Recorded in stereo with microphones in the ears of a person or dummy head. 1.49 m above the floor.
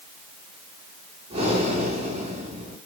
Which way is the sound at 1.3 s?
35° right (ahead or behind).